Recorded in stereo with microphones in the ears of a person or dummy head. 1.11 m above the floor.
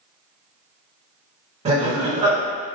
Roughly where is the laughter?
Right.